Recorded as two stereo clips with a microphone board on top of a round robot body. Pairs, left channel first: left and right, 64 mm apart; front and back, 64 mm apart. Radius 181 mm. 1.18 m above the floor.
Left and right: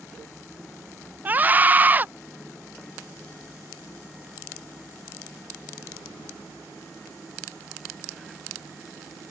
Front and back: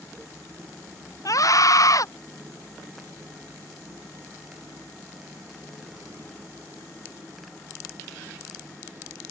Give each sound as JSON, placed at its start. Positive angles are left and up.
{"t": 1.2, "sound": "a scream", "azimuth_deg": -25}